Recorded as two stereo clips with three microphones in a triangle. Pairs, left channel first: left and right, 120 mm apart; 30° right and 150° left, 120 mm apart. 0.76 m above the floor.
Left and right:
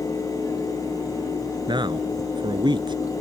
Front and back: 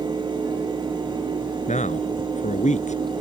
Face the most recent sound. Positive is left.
turn(degrees=-40)